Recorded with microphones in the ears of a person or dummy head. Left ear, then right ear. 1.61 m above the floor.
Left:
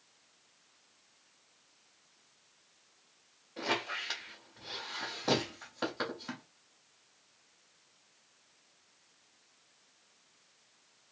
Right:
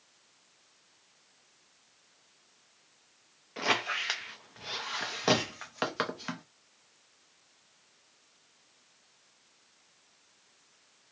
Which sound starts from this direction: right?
A squeak, at 3.6 s.